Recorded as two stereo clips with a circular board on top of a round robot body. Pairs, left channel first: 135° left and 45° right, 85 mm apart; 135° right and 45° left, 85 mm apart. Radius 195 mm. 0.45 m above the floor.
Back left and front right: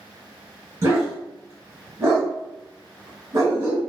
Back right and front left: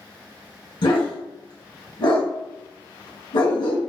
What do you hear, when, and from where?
0.8 s a dog barking: 105° right, 1.3 m